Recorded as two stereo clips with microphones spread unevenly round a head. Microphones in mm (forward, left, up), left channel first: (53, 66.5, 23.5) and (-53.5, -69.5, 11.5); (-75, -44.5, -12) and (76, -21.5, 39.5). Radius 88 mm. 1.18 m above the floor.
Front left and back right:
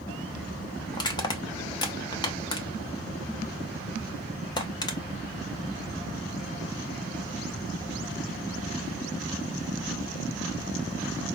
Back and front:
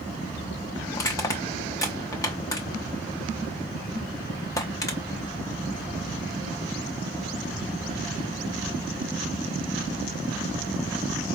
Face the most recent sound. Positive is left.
turn(degrees=105)